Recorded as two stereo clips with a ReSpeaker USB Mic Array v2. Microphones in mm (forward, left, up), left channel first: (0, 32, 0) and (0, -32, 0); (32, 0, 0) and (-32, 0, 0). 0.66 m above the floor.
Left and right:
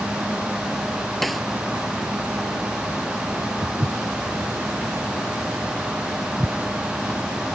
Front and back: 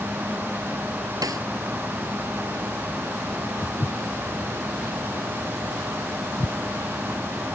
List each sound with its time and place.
1.2 s a snare drum: straight behind
3.6 s footsteps: 60° right; by 6.5 s 10° right